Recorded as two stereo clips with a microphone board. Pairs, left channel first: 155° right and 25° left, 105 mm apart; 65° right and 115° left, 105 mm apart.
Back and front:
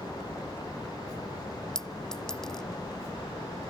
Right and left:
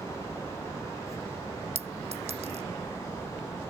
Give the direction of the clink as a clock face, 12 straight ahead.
8 o'clock.